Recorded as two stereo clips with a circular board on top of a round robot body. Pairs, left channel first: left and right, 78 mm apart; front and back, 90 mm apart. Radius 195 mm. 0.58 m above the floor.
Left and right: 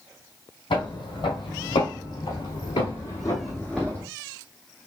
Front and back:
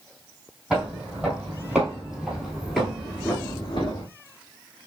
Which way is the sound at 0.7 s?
100° left.